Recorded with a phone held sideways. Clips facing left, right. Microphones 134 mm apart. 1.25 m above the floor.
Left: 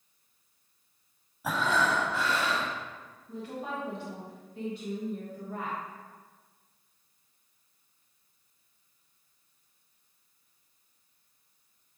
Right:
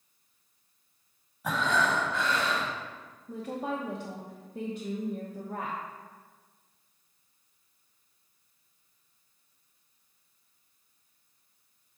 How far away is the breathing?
About 1.1 m.